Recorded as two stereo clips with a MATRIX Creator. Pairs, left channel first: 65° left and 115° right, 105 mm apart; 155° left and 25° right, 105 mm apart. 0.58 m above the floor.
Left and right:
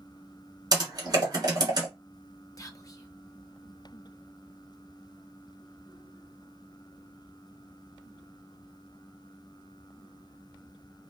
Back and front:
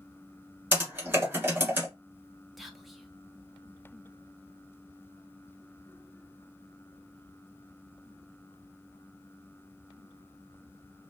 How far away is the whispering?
About 0.7 m.